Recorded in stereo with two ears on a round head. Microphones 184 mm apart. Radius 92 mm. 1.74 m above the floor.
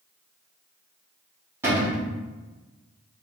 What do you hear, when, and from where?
1.6 s a cupboard door: 10° right (ahead or behind), 1.3 m